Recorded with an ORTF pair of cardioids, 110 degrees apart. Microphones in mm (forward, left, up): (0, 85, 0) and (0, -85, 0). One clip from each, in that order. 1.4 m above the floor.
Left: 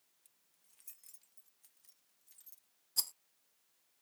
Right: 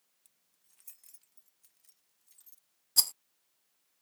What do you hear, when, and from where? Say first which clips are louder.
0.2 s keys jangling: right 2 dB; 10° right; by 2.7 s 5° right
3.0 s a rattle: right 10 dB; 40° right